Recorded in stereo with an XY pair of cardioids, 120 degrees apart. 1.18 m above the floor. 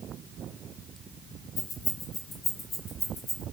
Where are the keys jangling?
65° left, 2.0 m; by 3.4 s 40° left, 3 m.